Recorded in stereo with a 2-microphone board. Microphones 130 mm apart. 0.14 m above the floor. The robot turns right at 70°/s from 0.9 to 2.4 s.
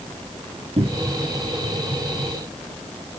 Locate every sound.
0.8 s a cupboard door: 50° right (ahead or behind), 1.1 m; by 1.2 s 40° right (ahead or behind), 1.1 m